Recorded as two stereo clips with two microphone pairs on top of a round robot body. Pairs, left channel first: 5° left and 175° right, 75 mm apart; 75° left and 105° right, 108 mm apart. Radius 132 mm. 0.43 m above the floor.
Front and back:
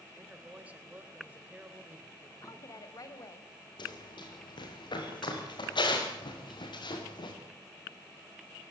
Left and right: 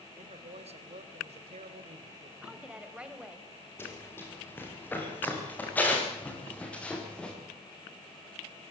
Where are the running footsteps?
5° left, 7.5 m; by 7.3 s 10° right, 6.5 m.